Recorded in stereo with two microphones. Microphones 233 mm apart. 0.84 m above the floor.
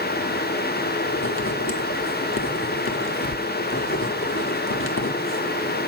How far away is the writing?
About 1.4 m.